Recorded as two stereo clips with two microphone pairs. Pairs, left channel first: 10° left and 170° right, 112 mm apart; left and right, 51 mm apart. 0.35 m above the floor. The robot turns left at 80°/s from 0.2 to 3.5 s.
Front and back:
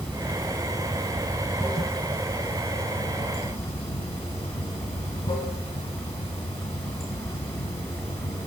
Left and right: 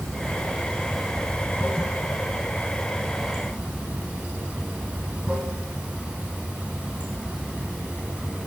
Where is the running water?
120° right, 1.0 m; by 8.5 s 25° right, 1.0 m.